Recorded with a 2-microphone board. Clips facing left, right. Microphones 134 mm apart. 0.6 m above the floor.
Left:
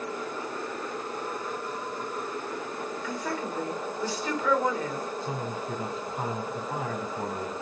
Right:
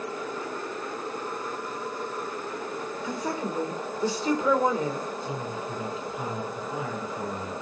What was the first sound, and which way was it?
A woman speaking, 25° right (ahead or behind).